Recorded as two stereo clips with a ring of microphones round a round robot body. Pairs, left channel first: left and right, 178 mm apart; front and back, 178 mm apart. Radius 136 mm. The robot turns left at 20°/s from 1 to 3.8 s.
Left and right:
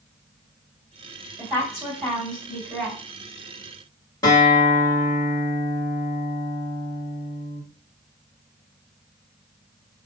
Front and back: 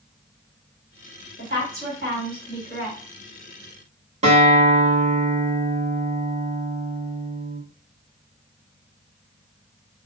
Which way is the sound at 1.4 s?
165° right.